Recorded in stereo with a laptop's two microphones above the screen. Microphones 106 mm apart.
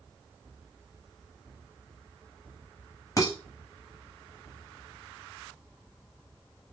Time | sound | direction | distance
3.2 | dishes clattering | 30° left (ahead or behind) | 0.9 m